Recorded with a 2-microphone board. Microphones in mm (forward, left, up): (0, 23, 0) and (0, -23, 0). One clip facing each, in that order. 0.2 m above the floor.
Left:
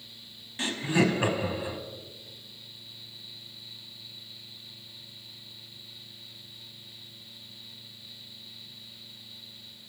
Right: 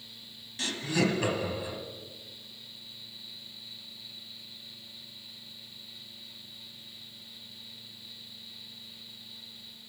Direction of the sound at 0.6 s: 25° left (ahead or behind).